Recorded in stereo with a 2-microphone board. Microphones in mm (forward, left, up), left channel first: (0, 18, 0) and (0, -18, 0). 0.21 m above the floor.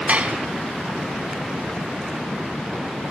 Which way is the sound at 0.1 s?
35° right (ahead or behind).